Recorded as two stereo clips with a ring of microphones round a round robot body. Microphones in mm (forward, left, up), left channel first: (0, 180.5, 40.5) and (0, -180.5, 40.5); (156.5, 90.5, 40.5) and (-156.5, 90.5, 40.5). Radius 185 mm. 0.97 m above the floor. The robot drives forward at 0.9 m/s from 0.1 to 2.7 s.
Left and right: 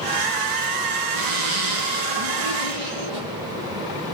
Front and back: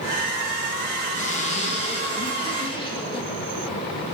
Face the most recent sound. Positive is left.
turn(degrees=-80)